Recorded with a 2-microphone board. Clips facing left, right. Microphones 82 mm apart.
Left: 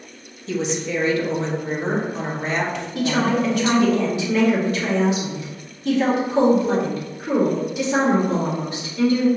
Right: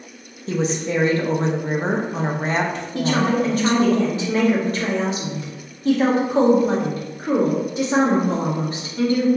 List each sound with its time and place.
0.5 s a woman speaking: 35° right (ahead or behind), 0.8 m
3.0 s a woman speaking: 35° right (ahead or behind), 1.7 m